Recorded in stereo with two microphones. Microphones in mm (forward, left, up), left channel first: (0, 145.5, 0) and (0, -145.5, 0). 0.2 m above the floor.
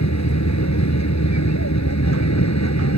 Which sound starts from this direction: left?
An aircraft, at 0.0 s.